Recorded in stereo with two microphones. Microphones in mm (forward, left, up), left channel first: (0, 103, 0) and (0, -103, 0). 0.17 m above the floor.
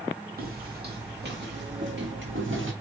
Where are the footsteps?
50° right (ahead or behind), 4.5 m; by 2.7 s 70° right (ahead or behind), 5 m.